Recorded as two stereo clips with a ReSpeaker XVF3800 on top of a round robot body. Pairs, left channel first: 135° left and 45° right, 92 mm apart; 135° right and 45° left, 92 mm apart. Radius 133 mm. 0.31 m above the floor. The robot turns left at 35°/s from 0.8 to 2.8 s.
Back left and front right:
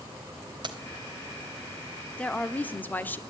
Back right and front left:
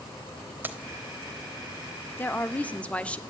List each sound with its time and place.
0.6 s keys jangling: 20° right, 1.2 m
2.2 s a woman speaking: 170° right, 0.9 m; by 3.2 s 170° left, 0.9 m